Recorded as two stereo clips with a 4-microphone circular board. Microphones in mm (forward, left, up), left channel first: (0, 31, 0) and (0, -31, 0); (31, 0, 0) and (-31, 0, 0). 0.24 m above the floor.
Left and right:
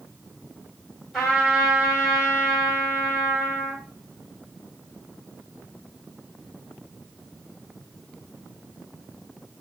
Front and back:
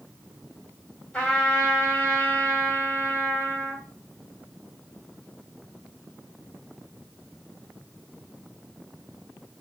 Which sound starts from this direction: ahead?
A trumpet, at 1.1 s.